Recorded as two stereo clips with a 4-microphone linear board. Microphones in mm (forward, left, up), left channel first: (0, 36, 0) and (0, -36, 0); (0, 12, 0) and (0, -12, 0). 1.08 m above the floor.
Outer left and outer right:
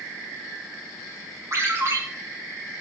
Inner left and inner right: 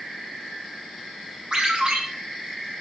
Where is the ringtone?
45° right (ahead or behind), 6.5 m.